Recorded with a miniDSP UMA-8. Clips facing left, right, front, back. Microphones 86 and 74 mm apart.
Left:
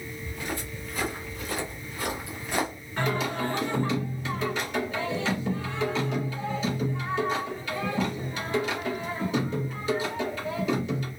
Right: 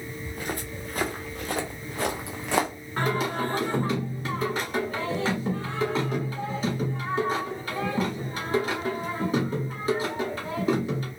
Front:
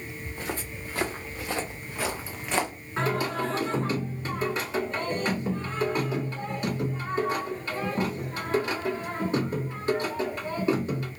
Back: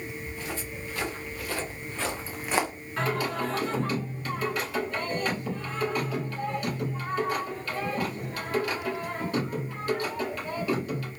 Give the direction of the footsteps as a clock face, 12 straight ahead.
1 o'clock.